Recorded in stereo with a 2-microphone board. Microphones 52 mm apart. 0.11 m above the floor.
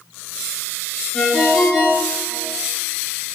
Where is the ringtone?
5° left (ahead or behind), 0.8 m.